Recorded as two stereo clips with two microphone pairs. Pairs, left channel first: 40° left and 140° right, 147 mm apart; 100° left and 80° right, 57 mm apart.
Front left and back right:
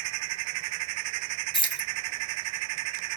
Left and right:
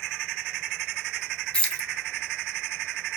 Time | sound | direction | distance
1.5 | keys jangling | 45° left | 0.6 m